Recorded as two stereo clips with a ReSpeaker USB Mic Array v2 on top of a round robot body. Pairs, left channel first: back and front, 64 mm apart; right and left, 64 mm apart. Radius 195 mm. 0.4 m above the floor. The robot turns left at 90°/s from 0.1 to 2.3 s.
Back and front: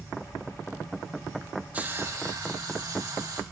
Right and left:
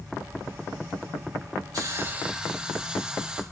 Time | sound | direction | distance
1.7 | a hiss | 65° left | 2.5 m